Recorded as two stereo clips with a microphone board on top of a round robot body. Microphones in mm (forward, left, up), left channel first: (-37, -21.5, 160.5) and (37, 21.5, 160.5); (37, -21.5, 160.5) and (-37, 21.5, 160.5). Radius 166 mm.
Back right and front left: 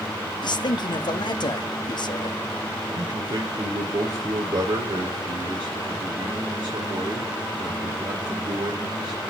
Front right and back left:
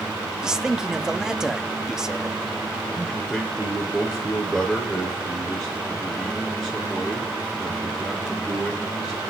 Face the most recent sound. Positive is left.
turn(degrees=60)